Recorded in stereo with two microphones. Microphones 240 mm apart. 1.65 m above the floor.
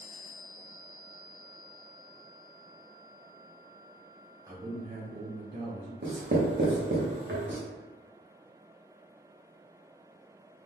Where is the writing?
50° right (ahead or behind), 0.8 m.